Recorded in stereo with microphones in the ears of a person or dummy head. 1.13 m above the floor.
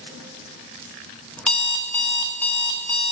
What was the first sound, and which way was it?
An alarm clock, centre (ahead or behind).